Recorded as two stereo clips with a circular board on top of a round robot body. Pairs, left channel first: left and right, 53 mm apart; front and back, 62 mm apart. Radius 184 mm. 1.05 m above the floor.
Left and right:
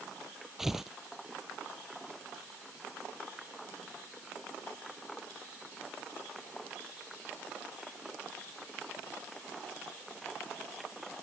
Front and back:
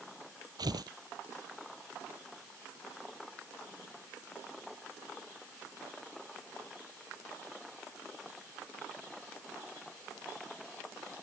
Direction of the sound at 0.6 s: 175° right.